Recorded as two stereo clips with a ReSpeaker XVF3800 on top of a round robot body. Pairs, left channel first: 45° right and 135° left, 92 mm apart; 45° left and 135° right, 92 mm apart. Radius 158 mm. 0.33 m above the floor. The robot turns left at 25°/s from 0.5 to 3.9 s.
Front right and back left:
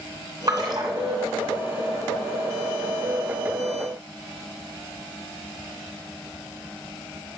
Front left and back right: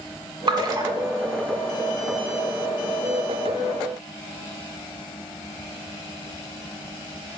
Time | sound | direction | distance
0.5 | a splash | 175° right | 1.5 m